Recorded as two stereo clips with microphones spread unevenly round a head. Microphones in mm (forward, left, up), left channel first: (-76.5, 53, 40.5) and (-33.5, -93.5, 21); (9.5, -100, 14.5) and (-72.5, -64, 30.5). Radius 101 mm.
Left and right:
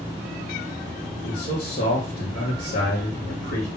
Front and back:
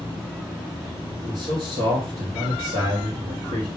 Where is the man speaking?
125° left, 2.5 m.